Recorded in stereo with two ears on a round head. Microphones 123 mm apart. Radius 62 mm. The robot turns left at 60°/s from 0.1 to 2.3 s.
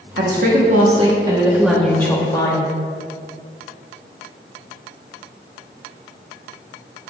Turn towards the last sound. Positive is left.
turn(degrees=145)